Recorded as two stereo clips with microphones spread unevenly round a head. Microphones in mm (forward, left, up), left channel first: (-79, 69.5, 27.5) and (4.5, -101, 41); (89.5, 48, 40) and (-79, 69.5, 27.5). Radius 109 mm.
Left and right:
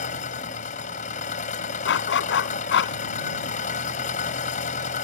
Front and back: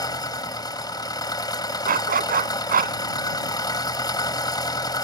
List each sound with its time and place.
0.0 s an engine running: 60° left
1.9 s a dog barking: 140° left